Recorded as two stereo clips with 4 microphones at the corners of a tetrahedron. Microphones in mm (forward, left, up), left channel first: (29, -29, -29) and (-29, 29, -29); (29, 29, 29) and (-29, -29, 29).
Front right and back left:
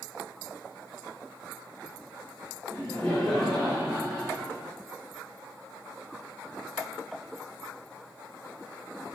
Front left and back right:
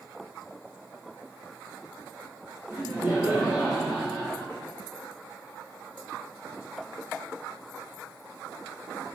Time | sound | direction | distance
2.7 | laughter | 90° right | 1.1 m